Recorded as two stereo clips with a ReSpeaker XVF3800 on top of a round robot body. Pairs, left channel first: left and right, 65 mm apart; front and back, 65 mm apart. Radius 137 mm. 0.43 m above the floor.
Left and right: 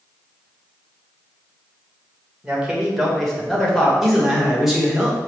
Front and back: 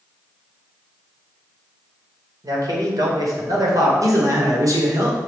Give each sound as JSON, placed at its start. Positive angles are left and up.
{"t": 2.4, "sound": "a man speaking", "azimuth_deg": -165, "distance_m": 2.5}
{"t": 4.0, "sound": "a man speaking", "azimuth_deg": -175, "distance_m": 2.0}